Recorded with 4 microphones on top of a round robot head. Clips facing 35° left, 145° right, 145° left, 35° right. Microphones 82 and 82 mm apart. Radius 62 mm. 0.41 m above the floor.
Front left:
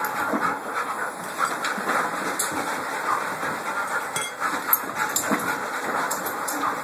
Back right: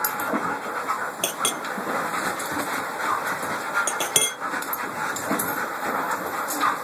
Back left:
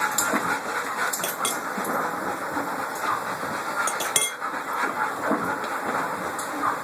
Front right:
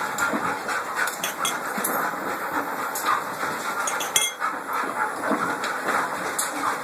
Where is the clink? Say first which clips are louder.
Front left 2 dB, even; 135° right.